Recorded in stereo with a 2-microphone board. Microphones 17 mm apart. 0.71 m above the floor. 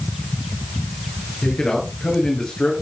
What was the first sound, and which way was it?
A man speaking, 55° left (ahead or behind).